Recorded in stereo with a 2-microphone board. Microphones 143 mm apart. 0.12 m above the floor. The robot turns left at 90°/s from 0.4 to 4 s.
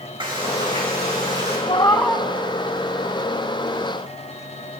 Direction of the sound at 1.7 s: 40° left.